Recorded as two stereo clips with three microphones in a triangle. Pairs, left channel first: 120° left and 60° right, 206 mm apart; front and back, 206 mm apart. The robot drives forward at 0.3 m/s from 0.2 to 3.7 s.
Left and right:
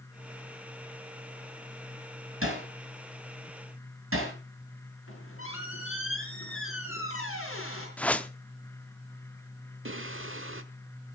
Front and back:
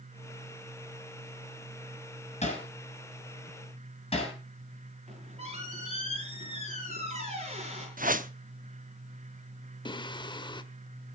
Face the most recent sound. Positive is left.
turn(degrees=-70)